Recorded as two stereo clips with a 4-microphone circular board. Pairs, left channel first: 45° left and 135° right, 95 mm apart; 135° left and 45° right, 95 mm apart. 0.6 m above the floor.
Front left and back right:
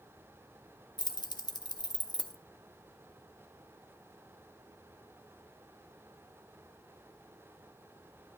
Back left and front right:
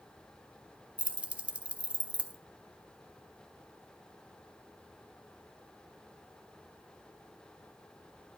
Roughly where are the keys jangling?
Ahead left.